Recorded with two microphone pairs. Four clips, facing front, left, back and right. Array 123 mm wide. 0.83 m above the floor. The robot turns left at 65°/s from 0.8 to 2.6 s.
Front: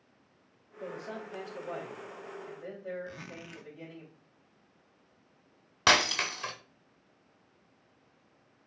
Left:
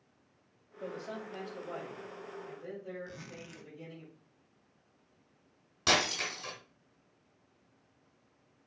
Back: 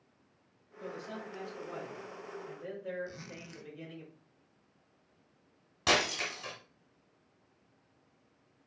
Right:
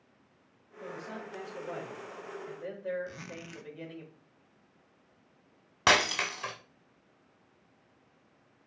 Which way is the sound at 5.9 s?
55° right.